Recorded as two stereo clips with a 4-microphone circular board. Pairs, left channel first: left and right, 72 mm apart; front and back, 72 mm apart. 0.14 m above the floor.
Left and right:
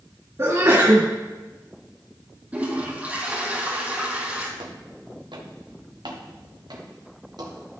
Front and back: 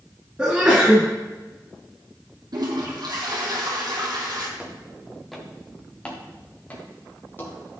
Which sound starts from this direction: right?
Footsteps, at 4.6 s.